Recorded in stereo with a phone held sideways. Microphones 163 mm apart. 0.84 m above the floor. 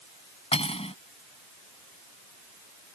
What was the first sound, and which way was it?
Cutlery clinking, 40° left (ahead or behind).